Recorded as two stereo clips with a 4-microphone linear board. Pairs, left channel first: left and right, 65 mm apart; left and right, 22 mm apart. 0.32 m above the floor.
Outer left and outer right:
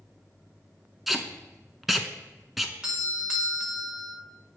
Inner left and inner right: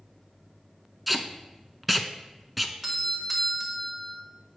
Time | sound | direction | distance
1.1 | tape being pulled | centre (ahead or behind) | 0.7 m
2.8 | a doorbell | 10° right (ahead or behind) | 1.3 m